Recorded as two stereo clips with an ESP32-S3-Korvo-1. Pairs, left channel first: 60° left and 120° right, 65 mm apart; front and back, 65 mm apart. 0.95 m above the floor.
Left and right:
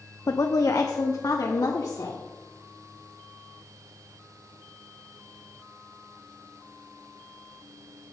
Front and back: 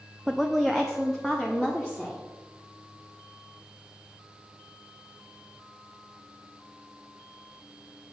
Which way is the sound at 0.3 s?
95° left.